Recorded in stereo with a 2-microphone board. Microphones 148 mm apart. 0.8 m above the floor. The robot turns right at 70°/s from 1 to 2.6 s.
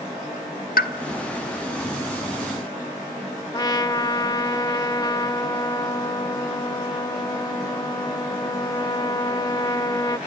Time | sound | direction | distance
0.8 | a pop | 80° left | 1.0 m
3.5 | a trumpet | 25° left (ahead or behind) | 0.6 m